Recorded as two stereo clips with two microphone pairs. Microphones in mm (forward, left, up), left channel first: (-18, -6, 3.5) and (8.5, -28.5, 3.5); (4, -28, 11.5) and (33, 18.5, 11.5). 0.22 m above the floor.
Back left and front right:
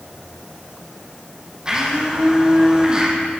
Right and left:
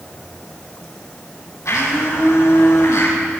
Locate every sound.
1.6 s a blender: 110° right, 5.5 m